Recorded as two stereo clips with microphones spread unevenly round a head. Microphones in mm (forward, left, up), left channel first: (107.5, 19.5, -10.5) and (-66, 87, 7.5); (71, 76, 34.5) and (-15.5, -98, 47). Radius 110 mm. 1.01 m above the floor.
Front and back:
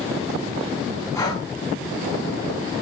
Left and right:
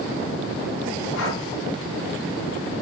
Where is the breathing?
55° left, 5.5 m.